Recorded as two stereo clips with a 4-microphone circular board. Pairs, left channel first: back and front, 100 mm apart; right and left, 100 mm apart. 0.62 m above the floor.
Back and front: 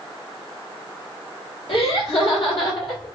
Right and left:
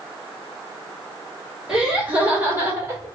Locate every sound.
1.7 s laughter: 170° left, 2.0 m; by 3.1 s 150° left, 2.0 m